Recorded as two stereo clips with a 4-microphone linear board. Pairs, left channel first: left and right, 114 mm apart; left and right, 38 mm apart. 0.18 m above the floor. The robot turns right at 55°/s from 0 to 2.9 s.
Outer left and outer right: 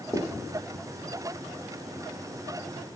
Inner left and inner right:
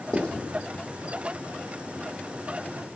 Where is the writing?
15° left (ahead or behind), 4 m; by 0.3 s 25° left (ahead or behind), 4 m.